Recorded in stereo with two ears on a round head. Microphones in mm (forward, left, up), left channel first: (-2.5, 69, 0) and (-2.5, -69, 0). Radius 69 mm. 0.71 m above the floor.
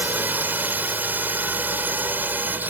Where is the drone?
10° right (ahead or behind).